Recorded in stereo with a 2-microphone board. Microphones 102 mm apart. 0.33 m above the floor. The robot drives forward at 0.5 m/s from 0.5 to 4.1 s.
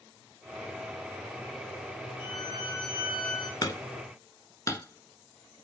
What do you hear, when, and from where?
2.2 s a violin: 60° left (ahead or behind), 2.5 m; by 3.5 s 55° left (ahead or behind), 2.5 m
3.6 s hammering: 40° left (ahead or behind), 0.8 m; by 5.6 s 30° left (ahead or behind), 1.0 m